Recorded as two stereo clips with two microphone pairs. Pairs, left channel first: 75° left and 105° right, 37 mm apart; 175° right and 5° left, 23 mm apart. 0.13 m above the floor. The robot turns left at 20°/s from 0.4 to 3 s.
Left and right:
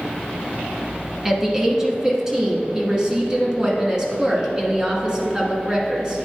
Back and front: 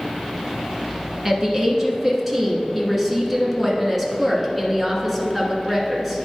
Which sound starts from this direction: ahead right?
A woman speaking, at 1.2 s.